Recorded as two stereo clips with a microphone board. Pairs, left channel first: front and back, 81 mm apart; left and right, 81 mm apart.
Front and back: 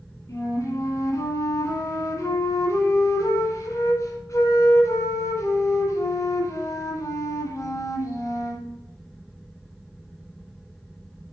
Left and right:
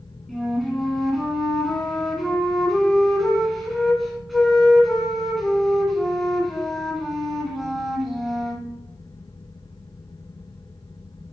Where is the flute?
Straight ahead, 1.7 m.